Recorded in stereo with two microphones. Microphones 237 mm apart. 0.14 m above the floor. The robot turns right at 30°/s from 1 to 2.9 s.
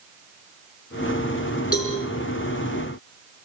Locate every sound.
1.7 s a cowbell: 75° left (ahead or behind), 7 m